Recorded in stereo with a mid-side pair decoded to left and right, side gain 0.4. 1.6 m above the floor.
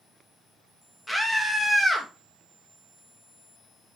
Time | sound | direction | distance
1.1 | a scream | 10° left | 2.5 m